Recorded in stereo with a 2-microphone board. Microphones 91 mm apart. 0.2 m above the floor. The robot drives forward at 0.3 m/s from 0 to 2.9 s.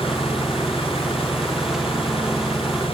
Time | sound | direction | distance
0.0 | an engine running | 90° left | ?